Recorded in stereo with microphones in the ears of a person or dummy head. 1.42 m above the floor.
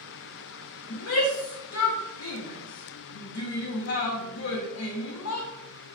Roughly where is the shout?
Left.